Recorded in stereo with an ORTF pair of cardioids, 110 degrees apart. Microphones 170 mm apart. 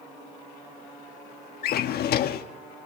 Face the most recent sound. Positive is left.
turn(degrees=65)